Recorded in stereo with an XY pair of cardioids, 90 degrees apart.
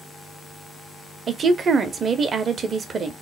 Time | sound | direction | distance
1.3 | a woman speaking | 60° right | 0.7 m